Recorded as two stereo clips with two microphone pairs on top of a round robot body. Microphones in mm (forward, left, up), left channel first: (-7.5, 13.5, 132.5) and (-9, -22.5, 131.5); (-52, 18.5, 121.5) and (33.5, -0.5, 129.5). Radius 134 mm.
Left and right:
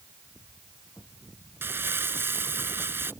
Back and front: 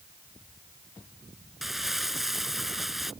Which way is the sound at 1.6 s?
100° right.